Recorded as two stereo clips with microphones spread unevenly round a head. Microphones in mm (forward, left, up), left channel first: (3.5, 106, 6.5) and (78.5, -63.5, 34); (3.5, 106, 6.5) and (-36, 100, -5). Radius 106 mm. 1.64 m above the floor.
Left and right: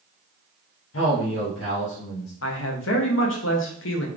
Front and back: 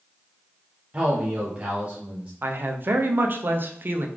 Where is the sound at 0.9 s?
130° left, 0.8 m.